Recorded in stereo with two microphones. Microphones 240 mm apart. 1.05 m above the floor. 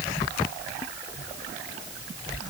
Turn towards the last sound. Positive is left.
No sound to turn to.